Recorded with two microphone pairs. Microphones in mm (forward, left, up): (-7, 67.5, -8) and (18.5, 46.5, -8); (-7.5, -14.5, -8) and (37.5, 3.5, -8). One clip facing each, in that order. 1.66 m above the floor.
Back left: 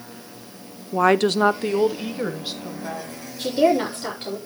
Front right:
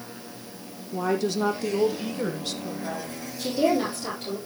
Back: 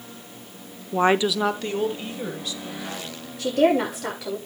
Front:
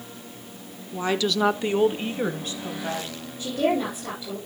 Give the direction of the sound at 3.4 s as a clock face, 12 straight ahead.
6 o'clock.